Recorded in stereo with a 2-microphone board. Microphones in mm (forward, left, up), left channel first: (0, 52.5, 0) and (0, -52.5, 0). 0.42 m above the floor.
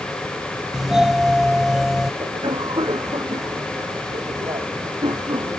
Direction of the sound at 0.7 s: 5° right (ahead or behind).